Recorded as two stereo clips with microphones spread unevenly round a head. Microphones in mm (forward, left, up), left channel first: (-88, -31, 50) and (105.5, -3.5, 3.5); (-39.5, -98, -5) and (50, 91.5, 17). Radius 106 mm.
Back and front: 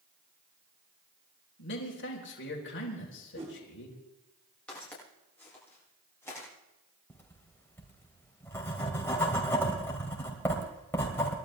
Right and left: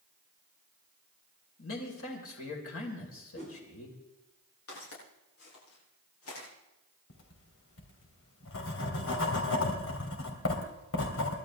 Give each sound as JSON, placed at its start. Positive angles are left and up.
{"t": 1.6, "sound": "a man speaking", "azimuth_deg": -140, "distance_m": 3.5}
{"t": 3.4, "sound": "a whoosh", "azimuth_deg": -55, "distance_m": 7.0}
{"t": 4.7, "sound": "footsteps", "azimuth_deg": -90, "distance_m": 9.5}
{"t": 7.1, "sound": "writing", "azimuth_deg": -95, "distance_m": 3.0}